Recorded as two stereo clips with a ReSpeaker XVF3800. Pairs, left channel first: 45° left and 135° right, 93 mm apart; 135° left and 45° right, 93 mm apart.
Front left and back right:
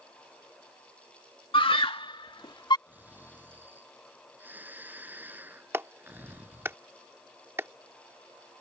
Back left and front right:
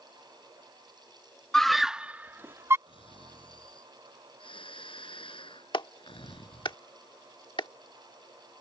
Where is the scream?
50° left; by 2.8 s 15° left.